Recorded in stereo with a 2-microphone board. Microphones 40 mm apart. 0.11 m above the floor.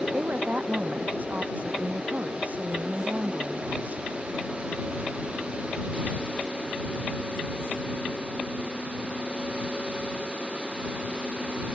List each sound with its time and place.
0.1 s a woman speaking: 45° right (ahead or behind)